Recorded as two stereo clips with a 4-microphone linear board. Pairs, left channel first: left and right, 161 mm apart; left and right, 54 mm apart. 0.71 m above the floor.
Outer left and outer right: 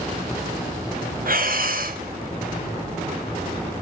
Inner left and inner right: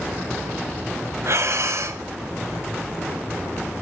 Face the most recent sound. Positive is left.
turn(degrees=-65)  # may be behind; listen again after turning